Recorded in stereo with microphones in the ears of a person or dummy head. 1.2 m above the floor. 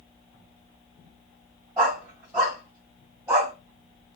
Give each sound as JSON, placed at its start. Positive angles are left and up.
{"t": 1.8, "sound": "a dog barking", "side_deg": -15, "distance_m": 1.9}